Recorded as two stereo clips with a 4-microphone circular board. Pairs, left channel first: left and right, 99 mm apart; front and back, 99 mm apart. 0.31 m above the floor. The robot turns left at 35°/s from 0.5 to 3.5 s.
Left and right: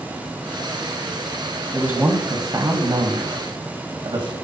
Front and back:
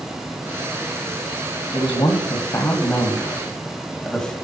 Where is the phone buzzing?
No phone buzzing in this recording.